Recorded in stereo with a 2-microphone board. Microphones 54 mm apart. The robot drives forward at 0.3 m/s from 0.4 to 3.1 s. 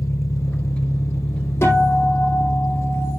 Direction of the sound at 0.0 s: 65° left (ahead or behind).